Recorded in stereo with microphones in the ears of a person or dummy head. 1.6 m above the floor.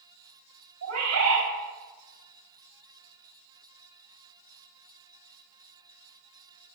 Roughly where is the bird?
Right.